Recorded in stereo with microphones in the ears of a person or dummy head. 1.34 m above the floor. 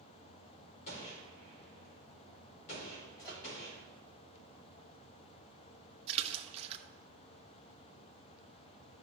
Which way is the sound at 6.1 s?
40° right (ahead or behind).